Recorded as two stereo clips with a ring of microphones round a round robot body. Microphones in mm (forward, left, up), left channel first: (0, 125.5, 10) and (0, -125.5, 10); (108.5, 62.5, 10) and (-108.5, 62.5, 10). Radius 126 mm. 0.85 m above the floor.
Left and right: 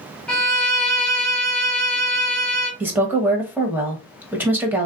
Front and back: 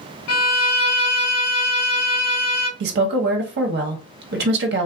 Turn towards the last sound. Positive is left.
turn(degrees=-170)